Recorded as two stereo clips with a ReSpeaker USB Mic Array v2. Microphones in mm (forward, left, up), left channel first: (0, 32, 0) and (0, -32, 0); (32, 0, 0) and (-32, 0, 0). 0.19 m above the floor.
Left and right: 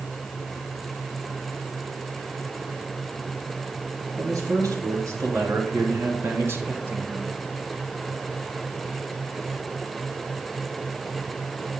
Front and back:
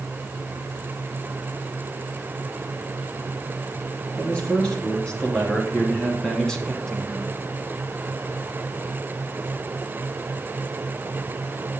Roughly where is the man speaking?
Right.